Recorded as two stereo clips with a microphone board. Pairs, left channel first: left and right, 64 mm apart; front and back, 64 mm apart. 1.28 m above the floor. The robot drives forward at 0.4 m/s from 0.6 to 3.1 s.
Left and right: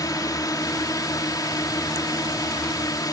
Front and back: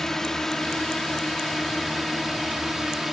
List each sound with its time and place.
0.0 s a drone: 85° left; by 3.1 s 95° left